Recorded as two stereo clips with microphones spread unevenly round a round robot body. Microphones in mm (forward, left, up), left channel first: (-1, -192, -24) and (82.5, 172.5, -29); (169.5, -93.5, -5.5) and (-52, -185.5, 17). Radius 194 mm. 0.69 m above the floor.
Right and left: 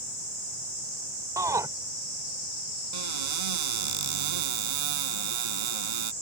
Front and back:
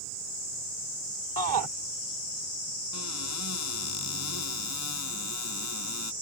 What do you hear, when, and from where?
1.4 s a shout: 160° left
2.9 s a cupboard door: 70° left